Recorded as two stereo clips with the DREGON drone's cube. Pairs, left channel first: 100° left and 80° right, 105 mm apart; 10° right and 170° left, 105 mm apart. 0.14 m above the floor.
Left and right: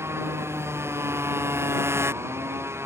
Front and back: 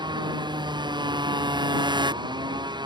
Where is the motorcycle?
145° right.